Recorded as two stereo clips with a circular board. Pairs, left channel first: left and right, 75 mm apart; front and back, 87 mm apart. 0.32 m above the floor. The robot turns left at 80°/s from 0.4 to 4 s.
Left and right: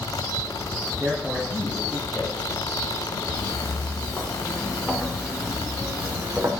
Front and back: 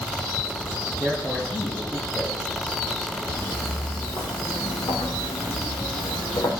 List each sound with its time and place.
1.0 s a man speaking: 130° right, 2.5 m; by 2.4 s 120° left, 2.5 m
3.3 s footsteps: 75° left, 3.5 m; by 6.5 s 30° right, 2.5 m